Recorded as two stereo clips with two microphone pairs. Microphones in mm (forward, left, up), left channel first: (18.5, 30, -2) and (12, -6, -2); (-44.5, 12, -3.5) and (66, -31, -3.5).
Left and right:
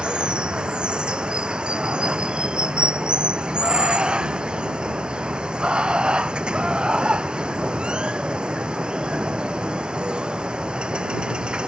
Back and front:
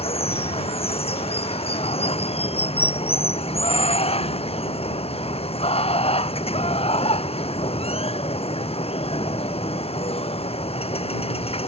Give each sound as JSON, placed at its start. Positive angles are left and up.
{"t": 0.0, "sound": "running water", "azimuth_deg": -165}